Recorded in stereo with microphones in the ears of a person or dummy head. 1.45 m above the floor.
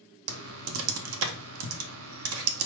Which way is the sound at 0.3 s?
70° right (ahead or behind).